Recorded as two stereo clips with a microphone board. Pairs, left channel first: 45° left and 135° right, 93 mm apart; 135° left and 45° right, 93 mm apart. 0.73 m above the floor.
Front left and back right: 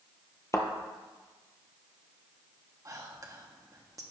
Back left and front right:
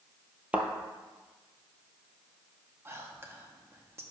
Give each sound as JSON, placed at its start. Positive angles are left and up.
{"t": 0.5, "sound": "a thud", "azimuth_deg": 20, "distance_m": 0.8}
{"t": 2.9, "sound": "whispering", "azimuth_deg": -95, "distance_m": 1.0}